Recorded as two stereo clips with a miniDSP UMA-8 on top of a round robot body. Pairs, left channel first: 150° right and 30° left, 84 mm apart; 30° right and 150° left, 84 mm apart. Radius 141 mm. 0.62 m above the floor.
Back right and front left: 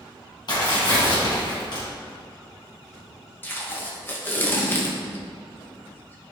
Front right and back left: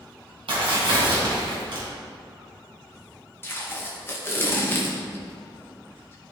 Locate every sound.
0.5 s tearing paper: 170° left, 2.5 m
3.4 s tape being pulled: 90° right, 1.6 m